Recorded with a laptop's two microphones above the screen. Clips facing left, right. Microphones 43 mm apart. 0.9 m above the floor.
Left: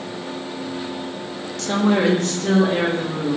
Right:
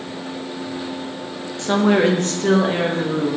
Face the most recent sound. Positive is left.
turn(degrees=-65)  # may be behind; listen again after turning